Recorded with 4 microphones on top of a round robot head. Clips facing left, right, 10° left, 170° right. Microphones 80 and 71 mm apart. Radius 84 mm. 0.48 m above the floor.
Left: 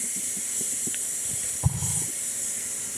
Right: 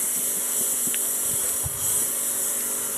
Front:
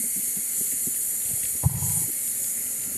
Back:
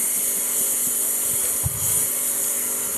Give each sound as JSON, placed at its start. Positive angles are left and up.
{"t": 0.0, "sound": "a lawn mower", "azimuth_deg": -135}
{"t": 1.6, "sound": "an explosion", "azimuth_deg": 55}